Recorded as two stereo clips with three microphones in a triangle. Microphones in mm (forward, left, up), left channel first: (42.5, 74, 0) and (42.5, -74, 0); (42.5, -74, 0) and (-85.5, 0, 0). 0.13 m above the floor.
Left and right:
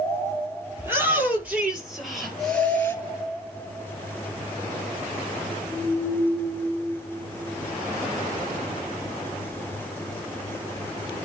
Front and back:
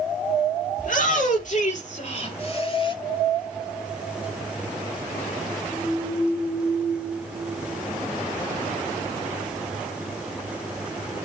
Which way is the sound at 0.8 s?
15° right.